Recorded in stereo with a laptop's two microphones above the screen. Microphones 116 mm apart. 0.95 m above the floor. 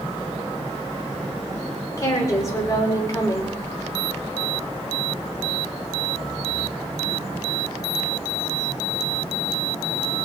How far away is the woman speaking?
About 3 m.